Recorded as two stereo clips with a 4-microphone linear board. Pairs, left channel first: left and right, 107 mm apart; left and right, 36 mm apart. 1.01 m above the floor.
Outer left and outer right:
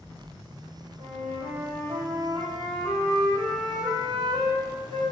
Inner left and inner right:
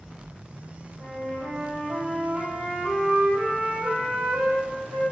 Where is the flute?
55° right (ahead or behind), 0.8 m.